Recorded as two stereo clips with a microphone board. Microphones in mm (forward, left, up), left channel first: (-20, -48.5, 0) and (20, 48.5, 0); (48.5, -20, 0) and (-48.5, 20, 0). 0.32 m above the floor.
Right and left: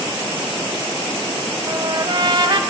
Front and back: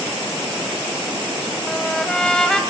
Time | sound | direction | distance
1.7 | a trumpet | 60° left | 1.5 m